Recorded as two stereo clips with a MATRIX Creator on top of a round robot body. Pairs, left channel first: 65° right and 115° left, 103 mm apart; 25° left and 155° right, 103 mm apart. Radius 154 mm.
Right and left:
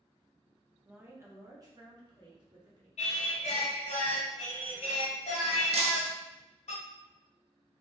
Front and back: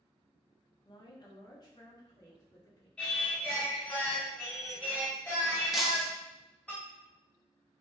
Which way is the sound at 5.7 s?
115° left.